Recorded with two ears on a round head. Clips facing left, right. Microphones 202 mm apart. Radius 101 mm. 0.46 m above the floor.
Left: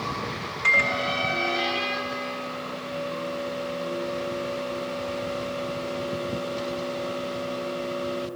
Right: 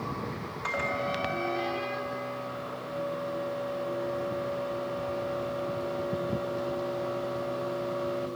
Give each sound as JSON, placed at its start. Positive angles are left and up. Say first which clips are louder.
{"t": 0.6, "sound": "a microwave", "louder": "left 3 dB", "side_deg": 40, "distance_m": 2.5}